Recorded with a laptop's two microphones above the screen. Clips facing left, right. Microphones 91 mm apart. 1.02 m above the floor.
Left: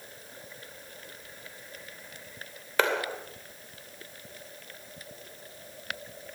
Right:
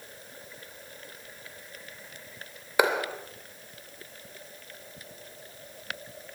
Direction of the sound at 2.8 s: 15° right (ahead or behind).